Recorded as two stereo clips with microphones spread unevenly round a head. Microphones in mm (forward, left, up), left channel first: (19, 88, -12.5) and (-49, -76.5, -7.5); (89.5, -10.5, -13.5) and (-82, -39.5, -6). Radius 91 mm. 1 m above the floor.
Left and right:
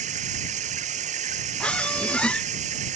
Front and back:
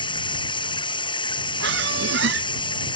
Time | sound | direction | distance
0.0 | running water | 55° right | ?
1.6 | a squeak | 150° left | ?